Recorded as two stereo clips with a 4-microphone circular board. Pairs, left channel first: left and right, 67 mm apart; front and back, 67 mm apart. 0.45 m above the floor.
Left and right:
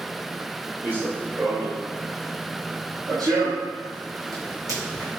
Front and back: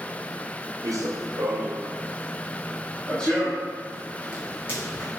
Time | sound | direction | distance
0.8 | running footsteps | 155° right | 0.9 m